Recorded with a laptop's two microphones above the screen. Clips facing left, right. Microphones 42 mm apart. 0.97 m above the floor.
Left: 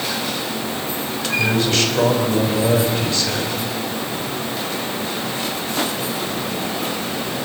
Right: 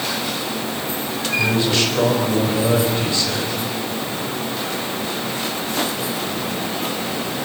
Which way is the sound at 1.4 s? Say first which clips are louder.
Even; 15° right (ahead or behind).